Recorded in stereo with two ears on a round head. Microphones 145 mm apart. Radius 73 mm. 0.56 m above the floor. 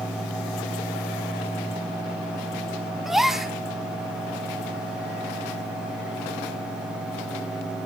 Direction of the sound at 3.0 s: 5° right (ahead or behind).